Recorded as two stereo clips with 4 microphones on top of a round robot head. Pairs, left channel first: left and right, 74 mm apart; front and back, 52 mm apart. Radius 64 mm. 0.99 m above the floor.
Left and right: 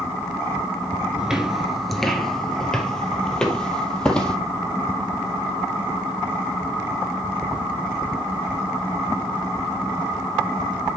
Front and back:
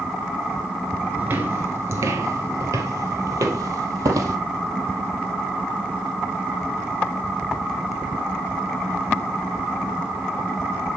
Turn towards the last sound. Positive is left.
turn(degrees=165)